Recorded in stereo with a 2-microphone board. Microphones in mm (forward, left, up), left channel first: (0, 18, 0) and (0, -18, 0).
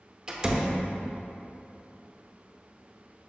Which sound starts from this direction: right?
A door slam, at 0.3 s.